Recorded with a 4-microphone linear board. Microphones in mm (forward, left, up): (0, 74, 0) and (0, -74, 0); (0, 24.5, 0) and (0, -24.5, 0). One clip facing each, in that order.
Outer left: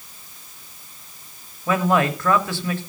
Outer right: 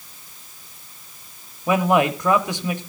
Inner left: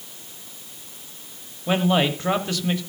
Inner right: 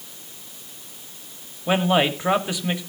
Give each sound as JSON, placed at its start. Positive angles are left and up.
{"t": 1.7, "sound": "a man speaking", "side_deg": -15, "distance_m": 1.4}